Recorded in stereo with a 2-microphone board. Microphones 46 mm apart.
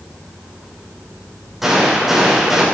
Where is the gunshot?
5° right (ahead or behind), 7 m.